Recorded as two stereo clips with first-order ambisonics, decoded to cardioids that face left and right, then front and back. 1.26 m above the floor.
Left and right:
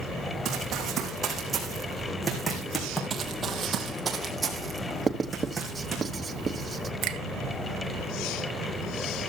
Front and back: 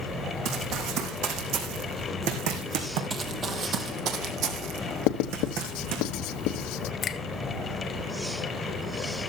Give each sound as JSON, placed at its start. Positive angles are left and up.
{"t": 0.5, "sound": "running footsteps", "azimuth_deg": -145, "distance_m": 3.0}
{"t": 3.1, "sound": "running footsteps", "azimuth_deg": -125, "distance_m": 1.4}
{"t": 5.1, "sound": "writing", "azimuth_deg": -15, "distance_m": 0.9}
{"t": 7.0, "sound": "a finger snap", "azimuth_deg": -60, "distance_m": 0.8}